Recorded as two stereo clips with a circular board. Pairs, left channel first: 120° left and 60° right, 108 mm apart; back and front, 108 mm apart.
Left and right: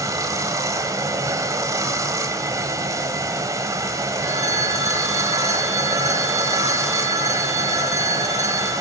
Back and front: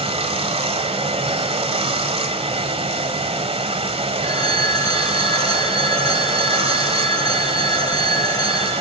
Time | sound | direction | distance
0.0 | running water | 5° right | 1.4 m
4.2 | a phone ringing | 125° left | 4.5 m